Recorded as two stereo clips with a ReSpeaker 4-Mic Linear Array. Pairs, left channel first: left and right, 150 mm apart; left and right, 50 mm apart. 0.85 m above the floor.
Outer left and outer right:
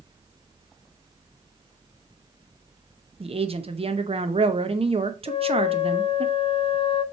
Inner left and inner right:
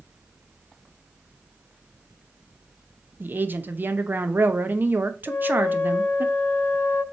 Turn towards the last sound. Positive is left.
turn(degrees=35)  # may be behind; listen again after turning